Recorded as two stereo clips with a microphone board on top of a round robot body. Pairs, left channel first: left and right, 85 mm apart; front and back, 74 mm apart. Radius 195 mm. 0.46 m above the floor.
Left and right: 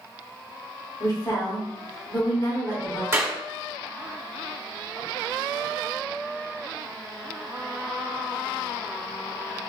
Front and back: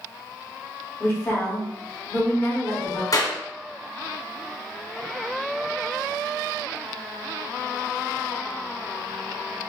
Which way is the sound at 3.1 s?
25° right.